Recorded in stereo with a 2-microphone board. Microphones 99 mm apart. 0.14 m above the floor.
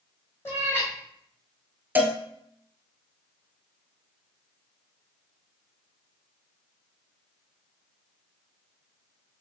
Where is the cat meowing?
25° left (ahead or behind), 1.5 m.